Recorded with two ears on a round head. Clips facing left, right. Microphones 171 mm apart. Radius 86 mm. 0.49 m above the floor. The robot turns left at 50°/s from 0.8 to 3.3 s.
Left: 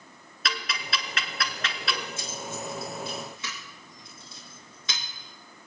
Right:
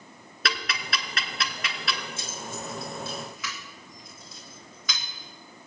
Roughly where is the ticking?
Right.